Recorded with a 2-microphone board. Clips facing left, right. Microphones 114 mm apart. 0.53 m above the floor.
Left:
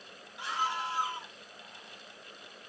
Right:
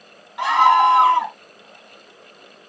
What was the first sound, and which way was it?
A scream, 80° right.